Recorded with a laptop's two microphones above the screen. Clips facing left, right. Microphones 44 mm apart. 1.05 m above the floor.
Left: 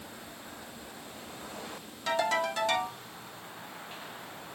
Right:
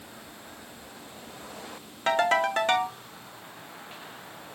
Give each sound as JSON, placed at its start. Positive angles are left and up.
{"t": 2.1, "sound": "a ringtone", "side_deg": -50, "distance_m": 0.7}